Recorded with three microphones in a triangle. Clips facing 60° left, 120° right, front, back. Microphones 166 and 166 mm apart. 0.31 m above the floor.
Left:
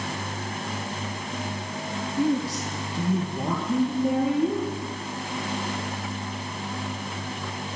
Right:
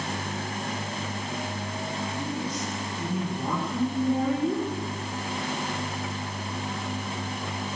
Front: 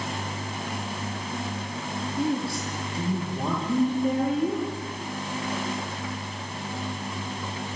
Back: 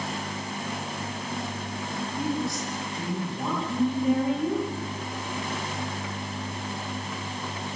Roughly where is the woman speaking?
Ahead left.